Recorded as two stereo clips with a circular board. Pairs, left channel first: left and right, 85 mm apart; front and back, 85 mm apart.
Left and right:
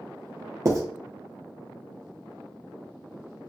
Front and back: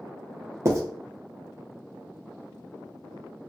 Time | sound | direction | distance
0.7 | writing | 130° right | 0.7 m